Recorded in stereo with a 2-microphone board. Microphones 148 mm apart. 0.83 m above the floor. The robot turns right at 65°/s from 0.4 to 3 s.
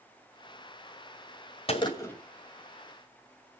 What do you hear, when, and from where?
1.7 s a gunshot: 140° left, 2.5 m; by 2.2 s 170° left, 2.5 m